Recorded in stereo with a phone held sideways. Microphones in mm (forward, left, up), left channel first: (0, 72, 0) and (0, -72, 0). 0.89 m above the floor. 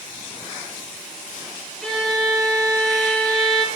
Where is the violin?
5° left (ahead or behind), 1.9 m.